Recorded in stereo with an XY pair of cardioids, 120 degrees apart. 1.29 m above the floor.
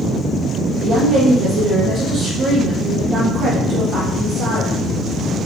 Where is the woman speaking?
50° right, 1.7 m.